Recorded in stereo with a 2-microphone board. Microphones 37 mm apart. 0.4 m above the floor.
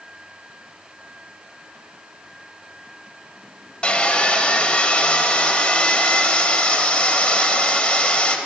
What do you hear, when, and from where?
3.8 s sawing: 30° left (ahead or behind), 0.9 m